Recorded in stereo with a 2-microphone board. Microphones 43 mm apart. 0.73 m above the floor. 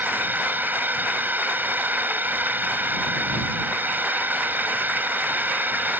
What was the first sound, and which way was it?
A drone, 45° right (ahead or behind).